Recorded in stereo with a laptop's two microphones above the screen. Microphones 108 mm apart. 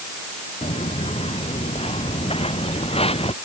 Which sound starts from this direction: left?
Footsteps, at 0.6 s.